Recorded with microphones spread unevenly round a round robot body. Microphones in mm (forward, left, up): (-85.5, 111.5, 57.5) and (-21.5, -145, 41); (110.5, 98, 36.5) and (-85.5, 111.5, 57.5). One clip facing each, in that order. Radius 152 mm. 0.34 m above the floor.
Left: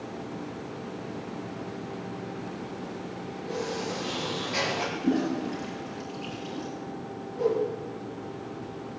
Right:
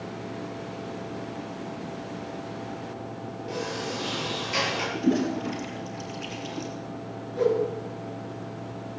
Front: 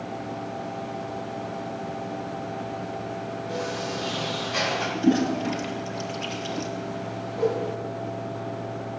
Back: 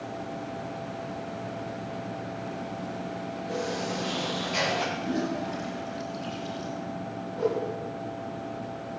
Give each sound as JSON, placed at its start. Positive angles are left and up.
{"t": 3.5, "sound": "a sliding door", "azimuth_deg": -115, "distance_m": 9.5}
{"t": 5.0, "sound": "a toilet flushing", "azimuth_deg": -10, "distance_m": 2.0}
{"t": 7.4, "sound": "a whoosh", "azimuth_deg": -80, "distance_m": 5.5}